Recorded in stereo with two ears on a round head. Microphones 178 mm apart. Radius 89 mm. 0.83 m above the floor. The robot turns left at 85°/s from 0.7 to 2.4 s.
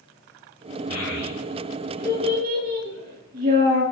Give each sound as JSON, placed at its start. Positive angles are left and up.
{"t": 0.9, "sound": "a child speaking", "side_deg": 80, "distance_m": 6.5}